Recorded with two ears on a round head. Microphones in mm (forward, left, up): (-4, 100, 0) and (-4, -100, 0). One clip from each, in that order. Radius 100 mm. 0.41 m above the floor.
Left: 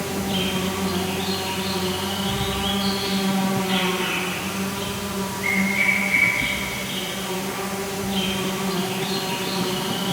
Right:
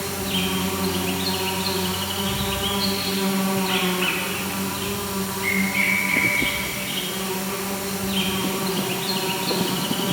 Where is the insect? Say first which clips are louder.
Even; 30° right (ahead or behind), 0.8 m.